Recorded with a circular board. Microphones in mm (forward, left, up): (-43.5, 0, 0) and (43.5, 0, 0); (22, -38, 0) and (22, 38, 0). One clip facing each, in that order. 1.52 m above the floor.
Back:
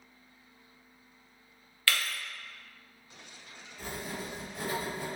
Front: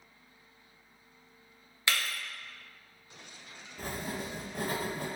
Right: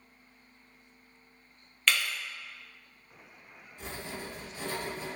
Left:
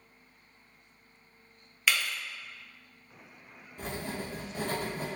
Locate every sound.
1.9 s breaking glass: 20° left, 0.7 m
3.8 s writing: 45° left, 0.7 m